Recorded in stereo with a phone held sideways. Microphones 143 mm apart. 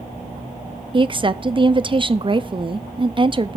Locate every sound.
0.9 s a woman speaking: 35° right (ahead or behind), 0.6 m